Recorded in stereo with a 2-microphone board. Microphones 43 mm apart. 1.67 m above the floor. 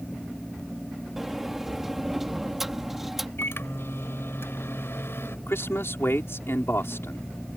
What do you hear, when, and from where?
1.2 s a sliding door: 5° right (ahead or behind)
3.4 s a microwave: 70° left (ahead or behind)
5.5 s a man speaking: 70° left (ahead or behind)